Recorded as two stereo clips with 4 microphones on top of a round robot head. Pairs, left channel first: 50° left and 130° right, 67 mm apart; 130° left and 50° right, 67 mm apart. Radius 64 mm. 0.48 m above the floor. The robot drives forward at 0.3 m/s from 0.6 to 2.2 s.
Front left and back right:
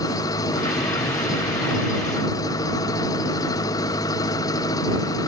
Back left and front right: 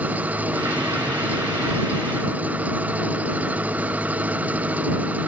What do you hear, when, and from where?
0.0 s an engine running: 20° left